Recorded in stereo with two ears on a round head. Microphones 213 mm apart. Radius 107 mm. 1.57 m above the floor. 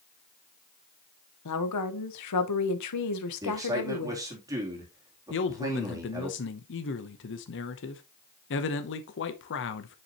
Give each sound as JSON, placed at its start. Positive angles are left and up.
{"t": 1.4, "sound": "a woman speaking", "side_deg": 80, "distance_m": 1.2}
{"t": 3.4, "sound": "a man speaking", "side_deg": -15, "distance_m": 3.0}
{"t": 5.3, "sound": "a man speaking", "side_deg": 55, "distance_m": 0.8}